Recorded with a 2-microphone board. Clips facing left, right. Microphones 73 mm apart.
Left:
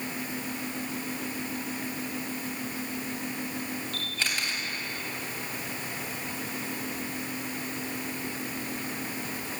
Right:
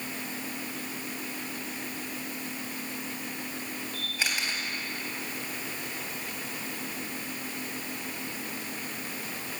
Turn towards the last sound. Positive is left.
turn(degrees=-15)  # may be behind; listen again after turning